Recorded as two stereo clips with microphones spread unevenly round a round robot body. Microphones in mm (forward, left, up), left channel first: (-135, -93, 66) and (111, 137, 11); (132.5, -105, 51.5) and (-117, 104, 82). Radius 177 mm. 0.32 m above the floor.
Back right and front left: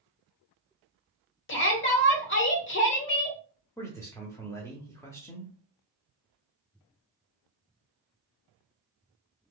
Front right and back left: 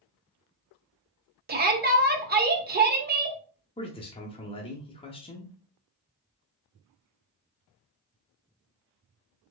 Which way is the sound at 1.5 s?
175° right.